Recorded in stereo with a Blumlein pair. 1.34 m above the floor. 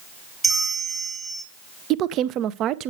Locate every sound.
0.4 s a bell: 10° right, 1.1 m
1.9 s a woman speaking: 35° right, 0.7 m